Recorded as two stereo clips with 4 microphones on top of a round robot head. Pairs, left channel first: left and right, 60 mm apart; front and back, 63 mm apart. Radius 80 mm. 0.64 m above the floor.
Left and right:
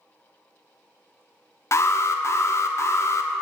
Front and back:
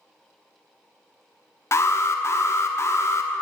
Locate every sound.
1.7 s an alarm: 45° left, 0.7 m